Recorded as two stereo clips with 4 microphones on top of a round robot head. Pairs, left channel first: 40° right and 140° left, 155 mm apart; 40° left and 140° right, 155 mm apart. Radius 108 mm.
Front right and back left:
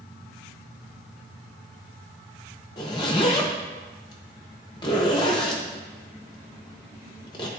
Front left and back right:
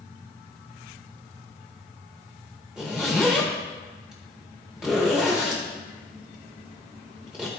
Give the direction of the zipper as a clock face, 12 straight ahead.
2 o'clock.